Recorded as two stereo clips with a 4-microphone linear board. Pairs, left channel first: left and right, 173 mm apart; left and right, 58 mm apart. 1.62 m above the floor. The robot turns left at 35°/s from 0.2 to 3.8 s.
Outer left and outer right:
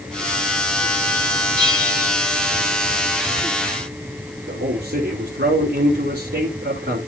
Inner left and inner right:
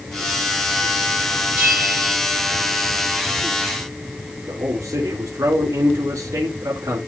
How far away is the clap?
No clap in this recording.